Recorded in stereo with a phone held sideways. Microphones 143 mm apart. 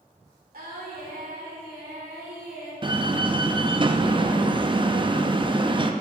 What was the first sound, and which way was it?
Singing, 75° right (ahead or behind).